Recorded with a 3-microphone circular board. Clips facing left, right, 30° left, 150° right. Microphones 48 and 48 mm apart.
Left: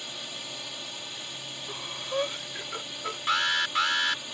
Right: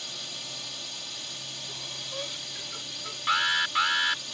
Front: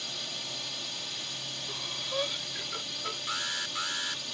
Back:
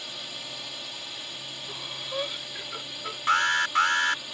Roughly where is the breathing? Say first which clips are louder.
Left 8 dB, back 1 dB; behind left.